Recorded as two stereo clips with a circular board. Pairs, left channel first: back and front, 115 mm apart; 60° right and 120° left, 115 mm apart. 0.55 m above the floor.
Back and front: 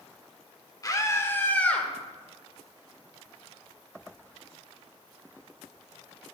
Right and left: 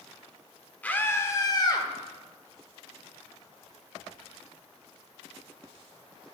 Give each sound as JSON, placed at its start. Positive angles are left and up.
{"t": 0.8, "sound": "a scream", "azimuth_deg": -135, "distance_m": 1.6}